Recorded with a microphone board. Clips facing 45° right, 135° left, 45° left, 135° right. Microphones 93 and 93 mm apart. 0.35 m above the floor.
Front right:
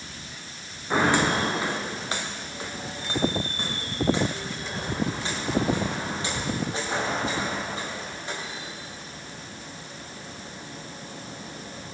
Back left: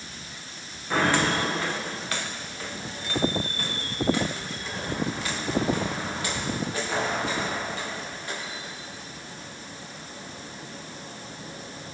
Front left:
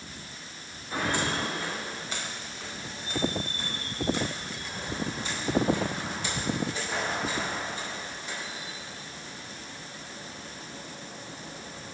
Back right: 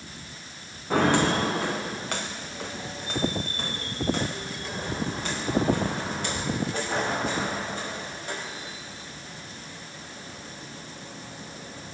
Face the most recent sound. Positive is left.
turn(degrees=-105)